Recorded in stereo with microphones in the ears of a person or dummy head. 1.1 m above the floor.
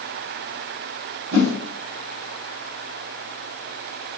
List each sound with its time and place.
1.3 s a whoosh: 80° right, 1.4 m